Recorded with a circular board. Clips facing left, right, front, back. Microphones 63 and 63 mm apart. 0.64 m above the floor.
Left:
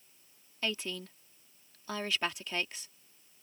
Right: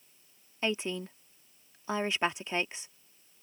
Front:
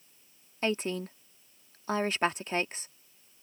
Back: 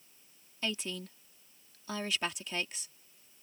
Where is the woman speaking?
30° right.